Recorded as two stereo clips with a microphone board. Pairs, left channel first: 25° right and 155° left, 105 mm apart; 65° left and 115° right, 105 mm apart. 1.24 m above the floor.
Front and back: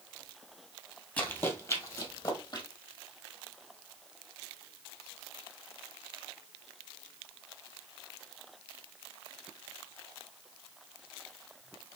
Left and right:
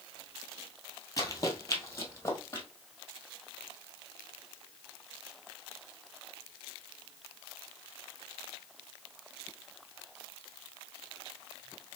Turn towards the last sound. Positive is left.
turn(degrees=10)